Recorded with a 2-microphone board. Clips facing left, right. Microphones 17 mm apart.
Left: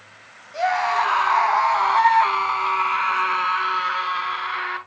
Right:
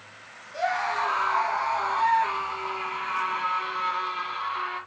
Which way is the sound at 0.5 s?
25° left (ahead or behind).